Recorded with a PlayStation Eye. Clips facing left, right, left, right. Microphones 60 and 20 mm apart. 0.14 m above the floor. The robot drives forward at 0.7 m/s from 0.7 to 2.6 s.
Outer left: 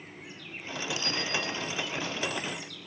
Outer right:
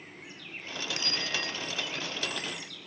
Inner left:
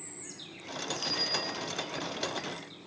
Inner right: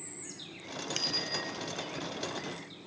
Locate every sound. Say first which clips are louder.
1.0 s a bicycle bell: outer left 2 dB, inner left 1 dB; 60° right (ahead or behind), 7 m